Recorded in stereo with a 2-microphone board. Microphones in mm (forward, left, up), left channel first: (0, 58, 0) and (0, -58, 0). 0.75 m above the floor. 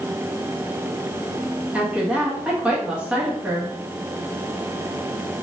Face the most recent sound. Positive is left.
turn(degrees=-10)  # may be behind; listen again after turning